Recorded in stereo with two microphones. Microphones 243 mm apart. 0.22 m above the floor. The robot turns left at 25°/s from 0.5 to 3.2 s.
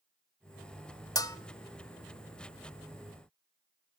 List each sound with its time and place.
1.1 s a bell: 15° left (ahead or behind), 0.5 m